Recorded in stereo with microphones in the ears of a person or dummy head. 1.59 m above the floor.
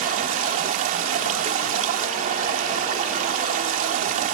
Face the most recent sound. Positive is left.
turn(degrees=-45)  # may be behind; listen again after turning